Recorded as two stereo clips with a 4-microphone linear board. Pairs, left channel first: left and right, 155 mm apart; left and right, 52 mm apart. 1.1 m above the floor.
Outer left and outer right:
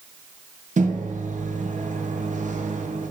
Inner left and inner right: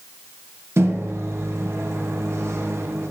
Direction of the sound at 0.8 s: 55° right (ahead or behind).